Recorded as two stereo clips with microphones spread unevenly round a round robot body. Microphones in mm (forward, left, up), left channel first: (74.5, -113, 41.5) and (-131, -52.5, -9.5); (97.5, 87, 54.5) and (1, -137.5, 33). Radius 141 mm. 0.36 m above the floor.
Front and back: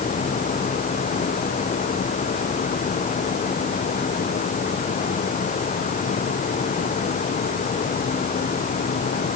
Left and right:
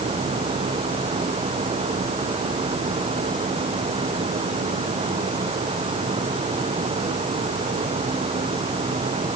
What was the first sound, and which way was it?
Only background noise.